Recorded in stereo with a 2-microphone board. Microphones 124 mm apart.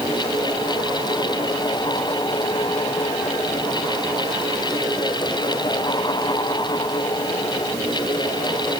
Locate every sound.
Only background noise.